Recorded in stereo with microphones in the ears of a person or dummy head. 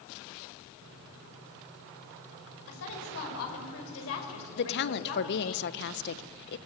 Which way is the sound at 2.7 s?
85° left.